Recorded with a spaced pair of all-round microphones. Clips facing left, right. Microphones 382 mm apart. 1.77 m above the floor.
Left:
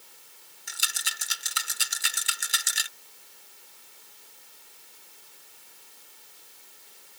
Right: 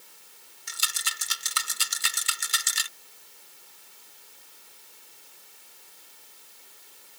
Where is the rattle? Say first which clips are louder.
Right 1 dB; 10° right (ahead or behind).